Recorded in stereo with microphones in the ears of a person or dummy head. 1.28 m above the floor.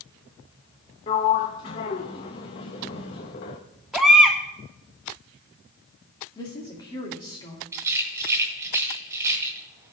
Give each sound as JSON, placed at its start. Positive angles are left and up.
{"t": 1.1, "sound": "a sliding door", "side_deg": 15, "distance_m": 0.6}
{"t": 3.9, "sound": "a baby crying", "side_deg": -5, "distance_m": 1.2}
{"t": 6.3, "sound": "a woman speaking", "side_deg": 20, "distance_m": 2.5}
{"t": 7.7, "sound": "a rattle", "side_deg": -15, "distance_m": 1.9}